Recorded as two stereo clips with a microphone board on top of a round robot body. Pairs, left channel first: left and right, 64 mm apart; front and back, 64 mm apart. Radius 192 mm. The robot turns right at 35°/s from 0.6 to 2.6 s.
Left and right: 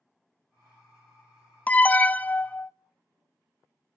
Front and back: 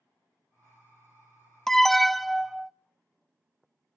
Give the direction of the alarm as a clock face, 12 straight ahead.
10 o'clock.